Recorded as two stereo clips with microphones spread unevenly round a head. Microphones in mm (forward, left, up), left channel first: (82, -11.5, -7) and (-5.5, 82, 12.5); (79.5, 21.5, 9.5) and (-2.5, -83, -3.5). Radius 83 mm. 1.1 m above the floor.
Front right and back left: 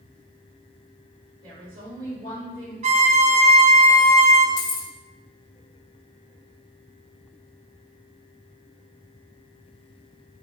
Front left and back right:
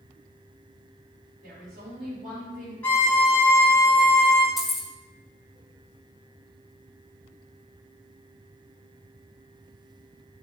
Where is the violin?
135° left, 0.8 m.